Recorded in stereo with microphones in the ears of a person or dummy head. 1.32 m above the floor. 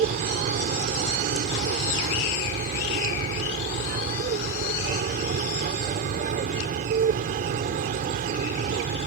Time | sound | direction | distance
0.0 | an aircraft | 50° right (ahead or behind) | ?